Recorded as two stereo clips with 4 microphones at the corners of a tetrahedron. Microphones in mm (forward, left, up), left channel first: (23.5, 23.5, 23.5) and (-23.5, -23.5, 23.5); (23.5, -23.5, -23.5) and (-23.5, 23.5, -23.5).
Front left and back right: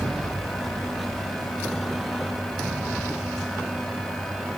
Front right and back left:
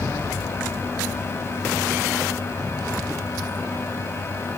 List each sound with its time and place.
Only background noise.